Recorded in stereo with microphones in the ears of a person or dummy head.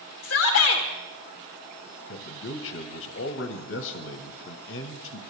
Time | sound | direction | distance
0.2 | a shout | 60° left (ahead or behind) | 1.5 m
2.1 | a man speaking | 65° left (ahead or behind) | 1.3 m